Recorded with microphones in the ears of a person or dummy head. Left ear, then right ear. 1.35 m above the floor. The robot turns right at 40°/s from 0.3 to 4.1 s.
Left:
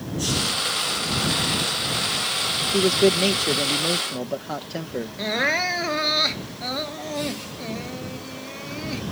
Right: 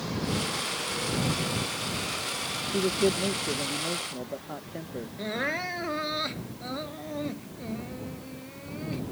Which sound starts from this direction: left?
Crying, at 5.2 s.